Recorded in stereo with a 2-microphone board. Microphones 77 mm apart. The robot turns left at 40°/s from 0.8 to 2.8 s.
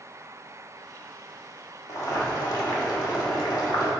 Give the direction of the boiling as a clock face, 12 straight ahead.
8 o'clock.